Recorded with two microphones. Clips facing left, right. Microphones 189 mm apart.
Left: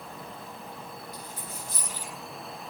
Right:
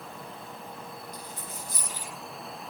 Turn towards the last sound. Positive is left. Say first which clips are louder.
# even
turn(degrees=-20)  # may be behind; listen again after turning